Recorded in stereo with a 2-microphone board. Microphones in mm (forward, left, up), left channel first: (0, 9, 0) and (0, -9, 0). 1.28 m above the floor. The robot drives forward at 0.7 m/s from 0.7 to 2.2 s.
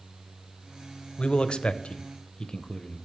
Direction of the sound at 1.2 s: 60° left (ahead or behind).